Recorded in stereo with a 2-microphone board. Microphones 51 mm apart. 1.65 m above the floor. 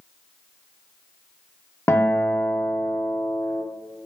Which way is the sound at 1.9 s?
60° left (ahead or behind).